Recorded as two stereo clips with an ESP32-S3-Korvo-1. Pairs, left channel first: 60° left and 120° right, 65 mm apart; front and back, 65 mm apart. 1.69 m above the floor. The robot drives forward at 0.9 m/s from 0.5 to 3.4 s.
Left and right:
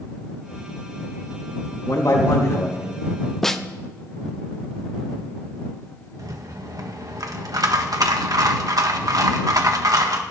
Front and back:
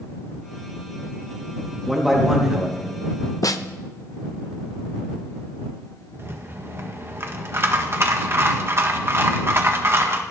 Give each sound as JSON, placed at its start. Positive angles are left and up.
{"t": 1.9, "sound": "a man speaking", "azimuth_deg": 90, "distance_m": 3.5}
{"t": 3.4, "sound": "a snare drum", "azimuth_deg": -20, "distance_m": 0.9}
{"t": 6.2, "sound": "a rattle", "azimuth_deg": -135, "distance_m": 1.7}